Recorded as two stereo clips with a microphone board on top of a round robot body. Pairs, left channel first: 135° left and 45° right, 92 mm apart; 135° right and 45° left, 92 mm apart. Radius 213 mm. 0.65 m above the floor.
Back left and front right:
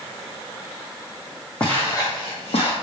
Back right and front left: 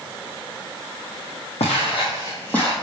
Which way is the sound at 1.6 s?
145° right.